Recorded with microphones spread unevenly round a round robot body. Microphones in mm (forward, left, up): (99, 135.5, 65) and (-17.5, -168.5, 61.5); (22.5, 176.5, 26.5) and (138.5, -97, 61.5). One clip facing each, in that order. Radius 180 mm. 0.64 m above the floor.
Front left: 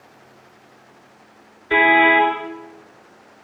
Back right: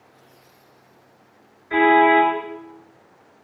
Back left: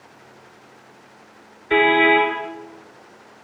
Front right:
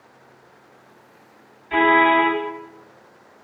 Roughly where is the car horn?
Behind left.